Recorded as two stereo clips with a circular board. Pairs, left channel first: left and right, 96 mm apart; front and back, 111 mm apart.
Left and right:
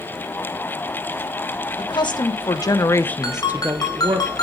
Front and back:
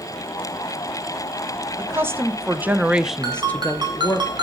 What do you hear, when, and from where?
1.8 s a woman speaking: 115° left, 1.6 m; by 4.2 s 60° right, 1.1 m
3.2 s a ringtone: 135° left, 2.5 m